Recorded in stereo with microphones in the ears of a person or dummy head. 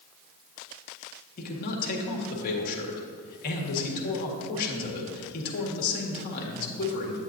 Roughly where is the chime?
I don't hear a chime.